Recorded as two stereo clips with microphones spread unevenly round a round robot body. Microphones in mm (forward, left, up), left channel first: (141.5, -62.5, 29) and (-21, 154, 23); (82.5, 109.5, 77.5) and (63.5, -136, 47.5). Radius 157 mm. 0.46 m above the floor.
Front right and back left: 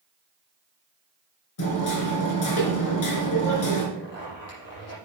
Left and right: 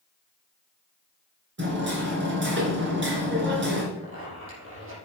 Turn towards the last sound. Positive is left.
turn(degrees=-55)